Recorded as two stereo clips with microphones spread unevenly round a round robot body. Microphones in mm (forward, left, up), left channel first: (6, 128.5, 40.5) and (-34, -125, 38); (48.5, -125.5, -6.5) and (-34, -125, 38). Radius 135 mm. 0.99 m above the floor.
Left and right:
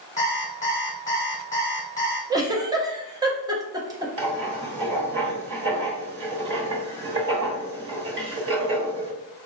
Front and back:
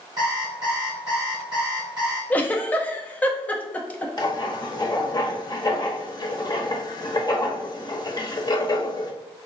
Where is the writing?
45° right, 1.1 m.